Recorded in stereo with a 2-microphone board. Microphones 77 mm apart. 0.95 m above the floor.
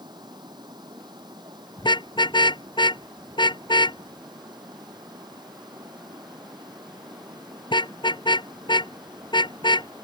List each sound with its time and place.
0.0 s running water: 70° right (ahead or behind)
1.8 s a car horn: 80° left